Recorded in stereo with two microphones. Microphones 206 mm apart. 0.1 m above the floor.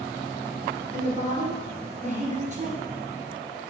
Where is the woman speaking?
35° right (ahead or behind), 1.7 m.